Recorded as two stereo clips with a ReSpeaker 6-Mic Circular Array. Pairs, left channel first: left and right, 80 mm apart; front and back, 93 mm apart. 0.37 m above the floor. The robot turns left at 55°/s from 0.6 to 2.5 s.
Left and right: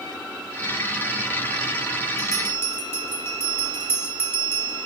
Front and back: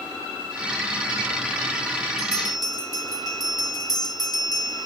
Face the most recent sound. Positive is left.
turn(degrees=35)